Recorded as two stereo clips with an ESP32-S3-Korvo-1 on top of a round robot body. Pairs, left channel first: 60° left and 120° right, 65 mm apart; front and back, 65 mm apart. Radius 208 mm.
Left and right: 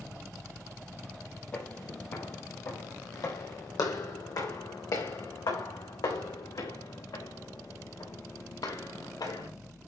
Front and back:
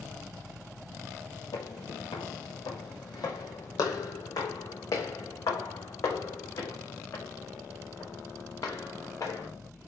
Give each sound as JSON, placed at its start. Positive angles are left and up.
{"t": 1.5, "sound": "footsteps", "azimuth_deg": -5, "distance_m": 1.2}